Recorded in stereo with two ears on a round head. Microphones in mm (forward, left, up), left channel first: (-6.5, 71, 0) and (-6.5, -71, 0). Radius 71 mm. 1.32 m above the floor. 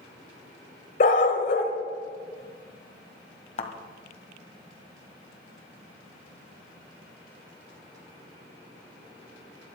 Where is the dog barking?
50° left (ahead or behind), 1.6 m.